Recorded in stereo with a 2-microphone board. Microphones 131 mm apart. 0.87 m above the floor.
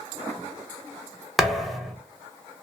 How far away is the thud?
About 0.7 m.